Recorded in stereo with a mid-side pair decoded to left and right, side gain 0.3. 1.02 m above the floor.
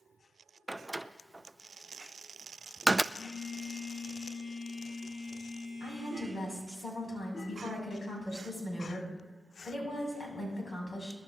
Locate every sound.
0.7 s a door slam: 15° right, 0.5 m
3.1 s a phone buzzing: 50° left, 6.5 m
5.8 s a woman speaking: 45° left, 7 m